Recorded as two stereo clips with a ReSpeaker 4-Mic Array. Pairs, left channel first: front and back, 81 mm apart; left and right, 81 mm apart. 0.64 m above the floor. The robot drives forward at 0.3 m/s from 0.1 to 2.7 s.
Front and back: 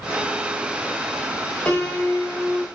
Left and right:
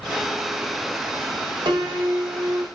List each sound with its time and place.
1.6 s a piano: 75° right, 0.9 m; by 2.6 s 95° right, 0.9 m